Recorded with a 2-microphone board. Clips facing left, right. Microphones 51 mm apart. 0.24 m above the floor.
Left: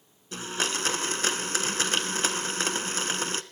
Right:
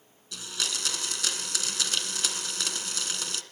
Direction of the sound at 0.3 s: 35° left (ahead or behind).